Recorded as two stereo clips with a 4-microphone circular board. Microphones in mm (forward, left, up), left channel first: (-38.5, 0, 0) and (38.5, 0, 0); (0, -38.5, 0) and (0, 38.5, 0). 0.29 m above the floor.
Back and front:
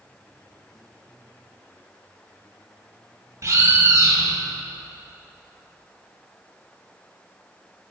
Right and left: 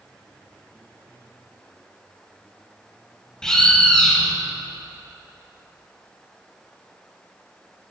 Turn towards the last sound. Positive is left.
turn(degrees=-10)